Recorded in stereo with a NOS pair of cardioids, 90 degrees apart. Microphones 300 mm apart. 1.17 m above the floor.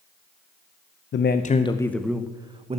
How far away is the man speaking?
About 0.8 m.